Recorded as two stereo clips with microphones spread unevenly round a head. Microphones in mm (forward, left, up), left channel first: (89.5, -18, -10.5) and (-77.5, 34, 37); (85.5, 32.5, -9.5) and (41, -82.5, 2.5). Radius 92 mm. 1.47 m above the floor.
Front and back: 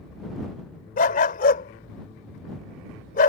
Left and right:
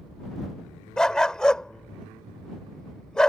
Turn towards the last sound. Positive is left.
turn(degrees=-20)